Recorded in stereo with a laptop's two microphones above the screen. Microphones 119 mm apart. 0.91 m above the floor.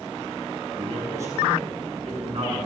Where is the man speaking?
25° right (ahead or behind), 7 m.